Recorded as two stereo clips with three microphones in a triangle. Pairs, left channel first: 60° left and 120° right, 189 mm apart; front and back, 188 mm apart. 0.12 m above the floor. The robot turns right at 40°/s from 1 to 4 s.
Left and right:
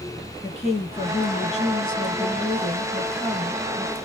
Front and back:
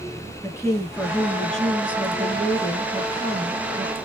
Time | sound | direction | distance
0.4 | a woman speaking | 65° left | 2.0 m